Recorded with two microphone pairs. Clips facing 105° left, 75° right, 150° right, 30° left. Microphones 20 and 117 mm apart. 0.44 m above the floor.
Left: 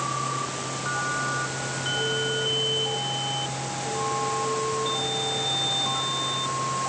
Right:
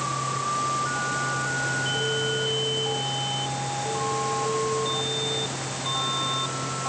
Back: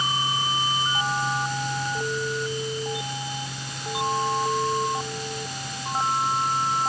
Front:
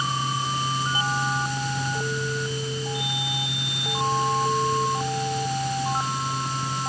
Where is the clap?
I don't hear a clap.